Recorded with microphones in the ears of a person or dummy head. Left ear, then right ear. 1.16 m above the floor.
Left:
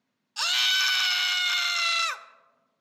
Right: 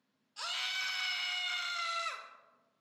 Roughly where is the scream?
Left.